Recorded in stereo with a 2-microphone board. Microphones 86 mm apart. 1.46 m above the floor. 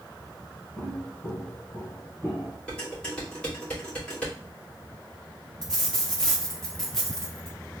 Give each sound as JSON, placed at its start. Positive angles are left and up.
{"t": 0.8, "sound": "footsteps", "side_deg": 20, "distance_m": 2.5}
{"t": 2.7, "sound": "dishes clattering", "side_deg": 15, "distance_m": 2.5}
{"t": 5.6, "sound": "a dropped coin", "side_deg": 5, "distance_m": 1.1}